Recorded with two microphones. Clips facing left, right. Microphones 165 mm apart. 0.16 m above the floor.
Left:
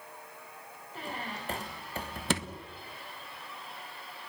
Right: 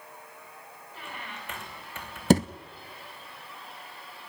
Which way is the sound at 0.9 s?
35° left (ahead or behind).